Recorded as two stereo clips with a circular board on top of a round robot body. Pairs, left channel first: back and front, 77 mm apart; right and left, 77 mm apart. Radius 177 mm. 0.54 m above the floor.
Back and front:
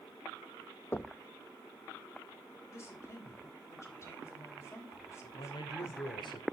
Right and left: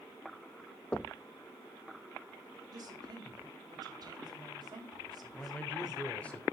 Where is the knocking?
150° right, 0.9 m.